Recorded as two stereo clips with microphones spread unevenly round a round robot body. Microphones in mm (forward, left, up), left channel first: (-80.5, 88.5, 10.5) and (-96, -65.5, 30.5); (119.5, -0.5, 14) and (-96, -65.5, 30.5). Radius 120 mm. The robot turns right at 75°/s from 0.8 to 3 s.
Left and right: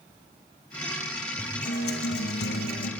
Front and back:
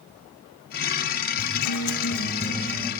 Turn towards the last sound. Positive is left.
turn(degrees=125)